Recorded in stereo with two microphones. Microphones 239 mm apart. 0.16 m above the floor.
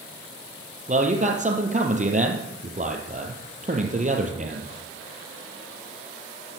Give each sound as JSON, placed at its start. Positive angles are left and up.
{"t": 0.9, "sound": "a man speaking", "side_deg": -30, "distance_m": 4.0}